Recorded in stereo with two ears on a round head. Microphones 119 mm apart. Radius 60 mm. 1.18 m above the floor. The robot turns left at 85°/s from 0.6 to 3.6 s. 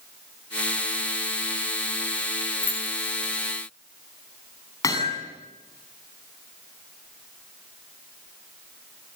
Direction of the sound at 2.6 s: 20° left (ahead or behind).